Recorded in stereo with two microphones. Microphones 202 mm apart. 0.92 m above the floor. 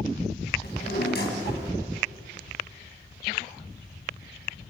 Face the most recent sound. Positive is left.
turn(degrees=60)  # may be behind; listen again after turning